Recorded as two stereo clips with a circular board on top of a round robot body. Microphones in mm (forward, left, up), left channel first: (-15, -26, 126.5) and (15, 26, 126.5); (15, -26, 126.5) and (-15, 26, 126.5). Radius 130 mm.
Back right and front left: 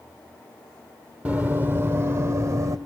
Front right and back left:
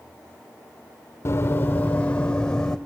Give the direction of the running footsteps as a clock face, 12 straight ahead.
12 o'clock.